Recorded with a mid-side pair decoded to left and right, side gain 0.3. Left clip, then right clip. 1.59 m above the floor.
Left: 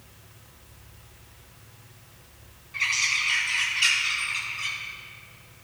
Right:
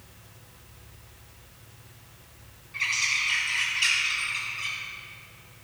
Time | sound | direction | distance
2.7 | a bird | 20° left | 5 m